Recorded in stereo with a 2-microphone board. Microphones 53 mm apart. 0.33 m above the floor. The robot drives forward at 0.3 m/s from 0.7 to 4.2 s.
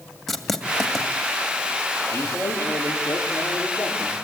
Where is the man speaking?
70° left (ahead or behind), 8 m; by 4.2 s 75° left (ahead or behind), 8 m.